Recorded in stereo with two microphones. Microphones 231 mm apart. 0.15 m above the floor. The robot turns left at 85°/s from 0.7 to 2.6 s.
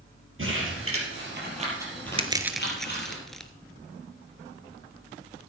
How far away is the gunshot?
I don't hear a gunshot.